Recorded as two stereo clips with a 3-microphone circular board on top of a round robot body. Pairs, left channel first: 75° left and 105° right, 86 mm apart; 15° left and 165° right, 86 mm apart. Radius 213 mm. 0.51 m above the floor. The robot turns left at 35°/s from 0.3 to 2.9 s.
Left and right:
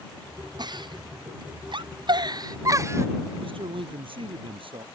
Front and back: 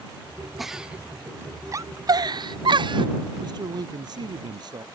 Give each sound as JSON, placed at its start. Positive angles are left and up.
{"t": 0.6, "sound": "a giggle", "azimuth_deg": -75}
{"t": 3.4, "sound": "a man speaking", "azimuth_deg": -125}